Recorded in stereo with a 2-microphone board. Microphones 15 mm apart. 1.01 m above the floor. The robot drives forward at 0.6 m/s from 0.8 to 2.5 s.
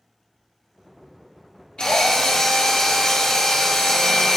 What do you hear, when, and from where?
1.8 s a drill: 70° left (ahead or behind), 1.7 m; by 4.4 s 55° left (ahead or behind), 1.8 m